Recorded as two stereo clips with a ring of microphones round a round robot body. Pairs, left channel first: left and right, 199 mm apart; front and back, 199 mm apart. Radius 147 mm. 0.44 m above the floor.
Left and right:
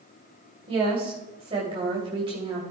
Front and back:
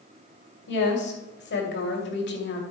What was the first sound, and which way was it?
A woman speaking, 25° right.